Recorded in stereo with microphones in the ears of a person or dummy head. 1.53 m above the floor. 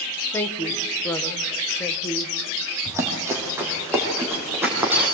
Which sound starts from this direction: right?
Running footsteps, at 2.9 s.